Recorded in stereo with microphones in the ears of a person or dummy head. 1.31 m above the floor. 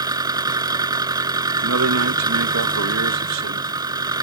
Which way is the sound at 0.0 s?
20° right (ahead or behind).